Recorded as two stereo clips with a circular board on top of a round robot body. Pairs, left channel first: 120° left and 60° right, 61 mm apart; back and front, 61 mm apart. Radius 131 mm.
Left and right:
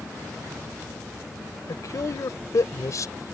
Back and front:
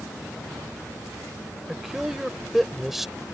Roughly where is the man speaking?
Left.